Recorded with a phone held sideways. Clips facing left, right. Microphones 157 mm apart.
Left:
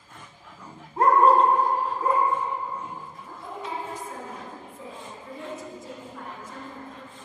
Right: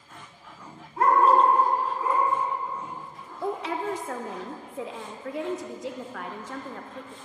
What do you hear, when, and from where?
1.0 s a dog barking: 40° left (ahead or behind), 1.4 m; by 3.3 s 55° left (ahead or behind), 2.5 m
3.4 s a woman speaking: 85° right, 0.6 m